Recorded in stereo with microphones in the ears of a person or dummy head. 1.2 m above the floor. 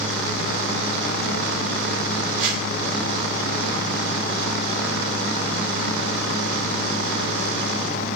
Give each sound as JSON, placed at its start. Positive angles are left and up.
{"t": 2.4, "sound": "a whoosh", "side_deg": -55, "distance_m": 1.4}